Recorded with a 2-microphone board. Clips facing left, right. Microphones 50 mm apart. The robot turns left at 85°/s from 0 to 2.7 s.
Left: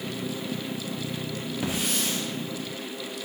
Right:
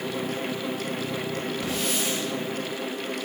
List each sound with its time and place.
1.6 s a hiss: 25° left, 3.5 m; by 2.2 s 25° right, 3.5 m